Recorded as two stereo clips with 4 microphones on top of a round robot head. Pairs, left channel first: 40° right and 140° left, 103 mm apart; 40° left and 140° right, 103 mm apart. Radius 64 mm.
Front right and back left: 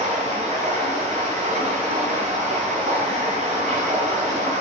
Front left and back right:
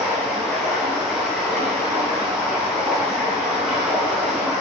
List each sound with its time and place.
0.0 s running water: 130° left, 3.5 m